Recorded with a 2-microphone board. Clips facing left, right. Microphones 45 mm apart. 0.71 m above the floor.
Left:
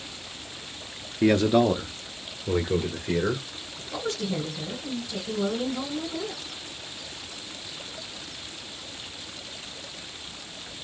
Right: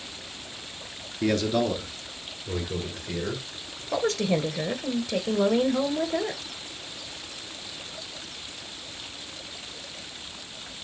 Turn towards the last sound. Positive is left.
turn(degrees=-75)  # may be behind; listen again after turning